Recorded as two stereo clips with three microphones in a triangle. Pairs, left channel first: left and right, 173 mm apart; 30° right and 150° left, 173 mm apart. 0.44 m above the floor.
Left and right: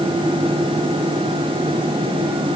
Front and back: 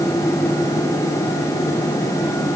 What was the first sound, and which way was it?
Only background noise.